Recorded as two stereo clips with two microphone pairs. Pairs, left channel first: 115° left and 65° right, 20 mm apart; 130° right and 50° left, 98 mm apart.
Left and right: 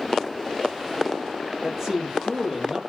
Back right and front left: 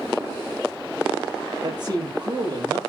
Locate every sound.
1.6 s a man speaking: 5° left, 5.5 m